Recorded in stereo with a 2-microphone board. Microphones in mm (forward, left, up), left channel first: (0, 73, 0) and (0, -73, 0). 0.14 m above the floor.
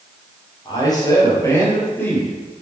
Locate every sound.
0.7 s a man speaking: 30° left (ahead or behind), 3.5 m; by 2.4 s 10° left (ahead or behind), 3.5 m